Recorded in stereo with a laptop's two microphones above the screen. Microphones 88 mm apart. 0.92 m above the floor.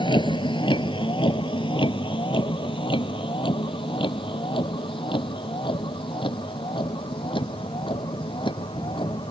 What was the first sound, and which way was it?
A vehicle, 75° left (ahead or behind).